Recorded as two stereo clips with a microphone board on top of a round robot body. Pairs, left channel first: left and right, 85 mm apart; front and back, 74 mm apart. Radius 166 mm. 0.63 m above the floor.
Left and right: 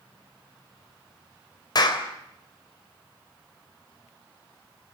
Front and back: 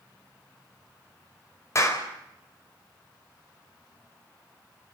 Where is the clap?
50° left, 3.5 m.